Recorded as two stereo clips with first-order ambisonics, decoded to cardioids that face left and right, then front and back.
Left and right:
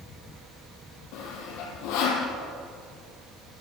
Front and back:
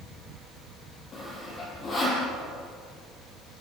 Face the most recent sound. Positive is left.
turn(degrees=70)